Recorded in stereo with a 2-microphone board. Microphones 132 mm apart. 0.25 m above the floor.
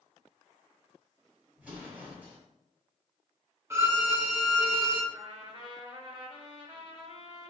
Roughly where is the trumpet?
Right.